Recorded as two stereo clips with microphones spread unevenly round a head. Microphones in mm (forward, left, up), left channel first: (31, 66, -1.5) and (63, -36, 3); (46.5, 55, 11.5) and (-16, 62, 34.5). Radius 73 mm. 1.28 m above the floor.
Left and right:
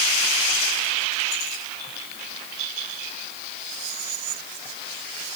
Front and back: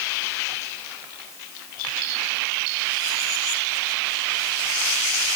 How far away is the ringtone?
I don't hear a ringtone.